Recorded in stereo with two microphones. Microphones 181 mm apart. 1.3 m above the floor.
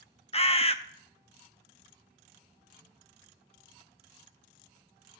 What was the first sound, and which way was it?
A bird, 35° left (ahead or behind).